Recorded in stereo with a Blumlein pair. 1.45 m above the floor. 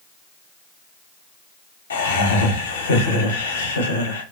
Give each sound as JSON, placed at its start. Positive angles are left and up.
{"t": 1.9, "sound": "laughter", "azimuth_deg": 70, "distance_m": 0.8}